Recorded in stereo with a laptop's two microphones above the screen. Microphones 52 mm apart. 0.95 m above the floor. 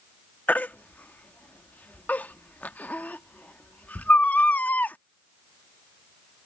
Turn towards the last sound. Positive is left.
turn(degrees=30)  # may be behind; listen again after turning